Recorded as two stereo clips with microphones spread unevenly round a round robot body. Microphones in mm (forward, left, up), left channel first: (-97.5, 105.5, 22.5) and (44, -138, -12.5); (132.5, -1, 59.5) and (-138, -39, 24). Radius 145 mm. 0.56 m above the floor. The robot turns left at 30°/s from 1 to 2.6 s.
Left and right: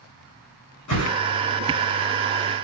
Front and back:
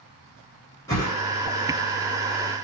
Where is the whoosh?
85° left, 7 m; by 1.2 s 80° left, 7 m.